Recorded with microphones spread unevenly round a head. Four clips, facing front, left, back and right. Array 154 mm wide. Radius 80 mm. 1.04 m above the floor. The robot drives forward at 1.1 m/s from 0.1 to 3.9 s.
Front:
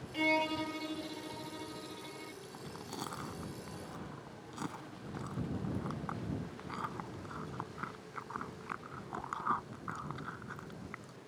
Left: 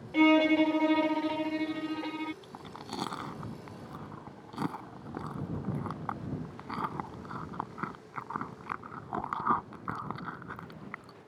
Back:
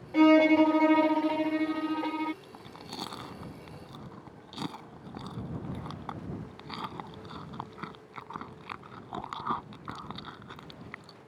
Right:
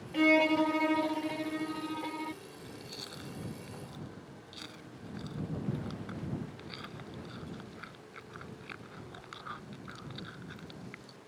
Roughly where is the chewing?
Left.